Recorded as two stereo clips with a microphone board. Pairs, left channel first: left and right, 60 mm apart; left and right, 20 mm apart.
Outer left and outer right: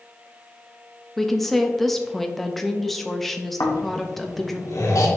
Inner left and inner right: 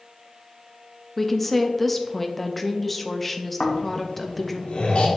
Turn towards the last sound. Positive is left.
turn(degrees=60)  # may be behind; listen again after turning